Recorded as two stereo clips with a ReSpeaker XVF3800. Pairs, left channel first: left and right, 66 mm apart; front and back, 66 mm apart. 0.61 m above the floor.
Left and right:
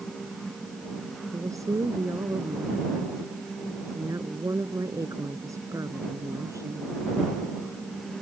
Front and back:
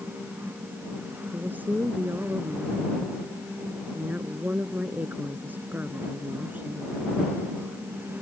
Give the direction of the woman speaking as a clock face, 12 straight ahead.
4 o'clock.